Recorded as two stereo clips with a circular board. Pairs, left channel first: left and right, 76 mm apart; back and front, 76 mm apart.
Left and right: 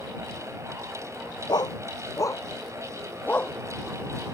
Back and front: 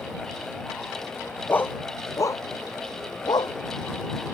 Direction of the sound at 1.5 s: 115° left.